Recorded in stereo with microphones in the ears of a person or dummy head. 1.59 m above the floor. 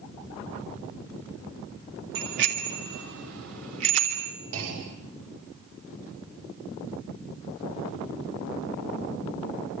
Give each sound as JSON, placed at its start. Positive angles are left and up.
{"t": 2.1, "sound": "a bicycle bell", "side_deg": -65, "distance_m": 2.5}
{"t": 4.5, "sound": "a clunk", "side_deg": -85, "distance_m": 5.5}